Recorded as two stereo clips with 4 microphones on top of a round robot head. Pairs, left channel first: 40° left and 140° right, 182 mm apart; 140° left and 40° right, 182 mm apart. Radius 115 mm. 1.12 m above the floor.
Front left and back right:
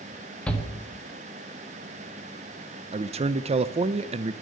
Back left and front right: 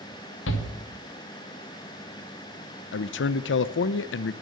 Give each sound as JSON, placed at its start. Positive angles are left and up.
{"t": 0.5, "sound": "a shout", "azimuth_deg": 125, "distance_m": 1.5}
{"t": 2.9, "sound": "a man speaking", "azimuth_deg": 160, "distance_m": 0.5}